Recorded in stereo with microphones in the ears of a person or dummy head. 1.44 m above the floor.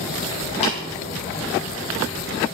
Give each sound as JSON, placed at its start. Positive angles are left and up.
{"t": 0.6, "sound": "tapping", "side_deg": 30, "distance_m": 4.0}